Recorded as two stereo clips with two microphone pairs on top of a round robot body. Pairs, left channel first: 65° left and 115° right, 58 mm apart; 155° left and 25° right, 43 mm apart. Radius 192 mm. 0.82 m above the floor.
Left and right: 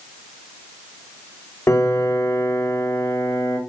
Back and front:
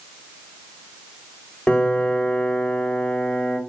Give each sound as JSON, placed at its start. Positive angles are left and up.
{"t": 1.7, "sound": "a piano", "azimuth_deg": 95, "distance_m": 1.8}